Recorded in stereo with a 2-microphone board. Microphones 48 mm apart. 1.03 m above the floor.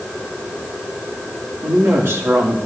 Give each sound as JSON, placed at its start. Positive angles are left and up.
{"t": 1.6, "sound": "a woman speaking", "side_deg": -65, "distance_m": 1.9}